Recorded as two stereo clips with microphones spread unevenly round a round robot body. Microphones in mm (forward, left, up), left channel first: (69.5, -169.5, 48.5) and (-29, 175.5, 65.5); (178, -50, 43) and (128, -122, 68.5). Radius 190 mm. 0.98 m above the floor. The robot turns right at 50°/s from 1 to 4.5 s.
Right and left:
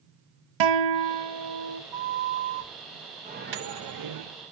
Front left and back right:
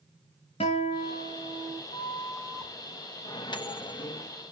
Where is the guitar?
110° left, 1.7 m; by 1.8 s 150° left, 1.7 m.